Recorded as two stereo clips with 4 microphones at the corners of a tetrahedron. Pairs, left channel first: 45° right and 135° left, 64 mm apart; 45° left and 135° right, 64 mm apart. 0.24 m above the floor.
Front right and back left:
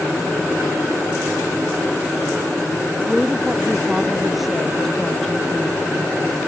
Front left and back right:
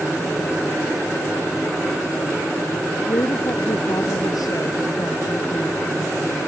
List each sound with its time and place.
3.1 s a woman speaking: 55° left; by 5.8 s 40° left